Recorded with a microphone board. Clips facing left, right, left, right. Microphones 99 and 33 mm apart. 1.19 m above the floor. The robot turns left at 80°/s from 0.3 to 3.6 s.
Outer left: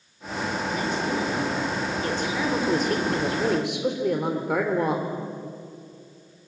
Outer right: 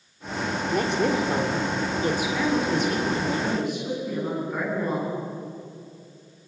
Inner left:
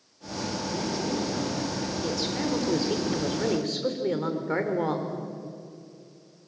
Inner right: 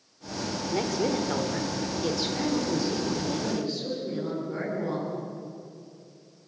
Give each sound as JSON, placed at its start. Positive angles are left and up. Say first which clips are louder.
{"t": 0.7, "sound": "a woman speaking", "louder": "outer right 6 dB, inner right 4 dB", "azimuth_deg": -50, "distance_m": 4.5}